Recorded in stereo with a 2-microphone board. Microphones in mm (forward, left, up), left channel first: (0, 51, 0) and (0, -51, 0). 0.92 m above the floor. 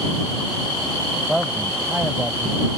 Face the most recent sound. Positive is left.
turn(degrees=-10)  # may be behind; listen again after turning